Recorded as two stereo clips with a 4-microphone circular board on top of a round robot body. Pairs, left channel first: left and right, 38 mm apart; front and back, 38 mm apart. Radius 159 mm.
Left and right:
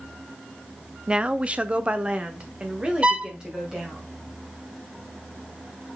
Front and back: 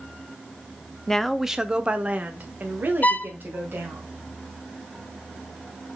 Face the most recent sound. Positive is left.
turn(degrees=-35)